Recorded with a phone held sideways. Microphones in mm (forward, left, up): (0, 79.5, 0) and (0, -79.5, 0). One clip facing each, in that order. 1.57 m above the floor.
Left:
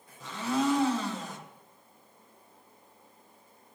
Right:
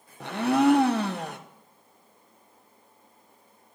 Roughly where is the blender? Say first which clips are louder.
Right 7 dB; right.